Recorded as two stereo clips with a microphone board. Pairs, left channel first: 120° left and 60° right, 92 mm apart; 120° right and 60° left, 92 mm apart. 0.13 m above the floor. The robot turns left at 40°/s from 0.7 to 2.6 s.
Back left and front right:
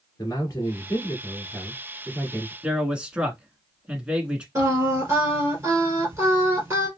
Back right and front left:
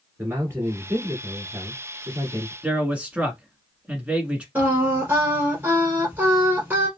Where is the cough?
No cough in this recording.